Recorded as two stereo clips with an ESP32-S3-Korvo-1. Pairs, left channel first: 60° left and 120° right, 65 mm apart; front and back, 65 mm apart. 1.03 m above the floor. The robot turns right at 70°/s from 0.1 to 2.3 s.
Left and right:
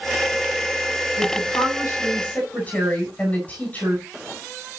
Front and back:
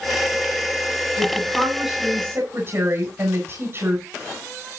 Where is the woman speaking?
50° left, 8 m; by 4.0 s 130° left, 8 m.